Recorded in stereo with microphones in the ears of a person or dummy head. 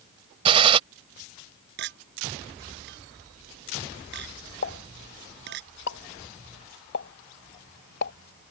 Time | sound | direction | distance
0.5 | a gunshot | 30° right (ahead or behind) | ?
1.8 | a clink | 60° right (ahead or behind) | ?
4.6 | a pop | 60° left (ahead or behind) | ?